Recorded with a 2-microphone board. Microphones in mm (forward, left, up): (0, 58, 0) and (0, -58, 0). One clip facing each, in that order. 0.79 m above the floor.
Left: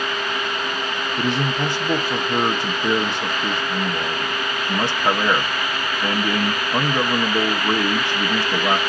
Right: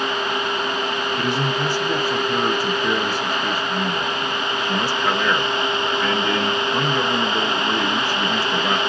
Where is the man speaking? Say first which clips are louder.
Left 2 dB; 20° left (ahead or behind), 0.8 m.